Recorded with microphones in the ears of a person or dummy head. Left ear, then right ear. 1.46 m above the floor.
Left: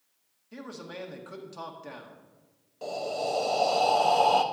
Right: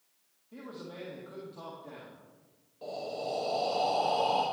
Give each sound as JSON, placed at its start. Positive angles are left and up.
{"t": 0.5, "sound": "a man speaking", "side_deg": 70, "distance_m": 1.6}
{"t": 2.8, "sound": "breathing", "side_deg": 60, "distance_m": 0.9}